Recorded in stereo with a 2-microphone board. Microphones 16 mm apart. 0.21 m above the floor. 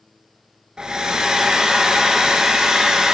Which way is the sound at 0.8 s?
65° right (ahead or behind).